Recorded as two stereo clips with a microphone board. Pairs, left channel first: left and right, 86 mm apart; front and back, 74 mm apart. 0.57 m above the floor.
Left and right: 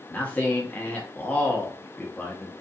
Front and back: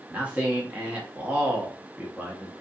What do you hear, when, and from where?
0.1 s a man speaking: 135° left, 0.8 m